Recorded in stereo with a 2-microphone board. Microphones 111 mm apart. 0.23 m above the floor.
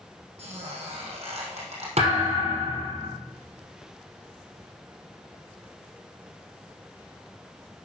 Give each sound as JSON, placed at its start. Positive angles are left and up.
{"t": 0.4, "sound": "a squeak", "side_deg": -80, "distance_m": 4.0}
{"t": 2.0, "sound": "a thud", "side_deg": -80, "distance_m": 3.5}